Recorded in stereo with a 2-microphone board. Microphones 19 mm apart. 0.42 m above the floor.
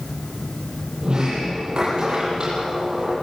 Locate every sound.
1.0 s a sliding door: 50° right (ahead or behind), 8.5 m